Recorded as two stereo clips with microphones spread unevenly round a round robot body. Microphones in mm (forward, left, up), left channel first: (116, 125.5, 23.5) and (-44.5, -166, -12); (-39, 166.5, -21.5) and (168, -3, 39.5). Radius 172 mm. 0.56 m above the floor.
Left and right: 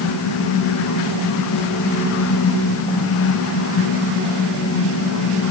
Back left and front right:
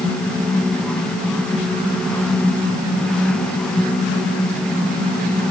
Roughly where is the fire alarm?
I don't hear a fire alarm.